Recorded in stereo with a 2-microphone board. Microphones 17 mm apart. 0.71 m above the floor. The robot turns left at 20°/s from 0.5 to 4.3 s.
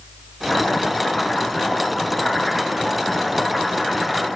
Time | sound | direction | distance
0.5 | chopping | 35° left | 4 m